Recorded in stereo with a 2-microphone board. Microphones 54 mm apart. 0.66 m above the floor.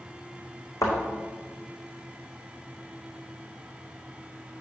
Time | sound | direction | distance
0.8 | a thud | 75° left (ahead or behind) | 3.5 m